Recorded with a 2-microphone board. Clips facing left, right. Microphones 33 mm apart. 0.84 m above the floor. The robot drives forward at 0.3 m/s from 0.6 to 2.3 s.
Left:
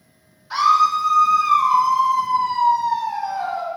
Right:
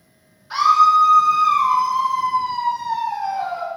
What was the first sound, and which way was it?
A scream, 15° right (ahead or behind).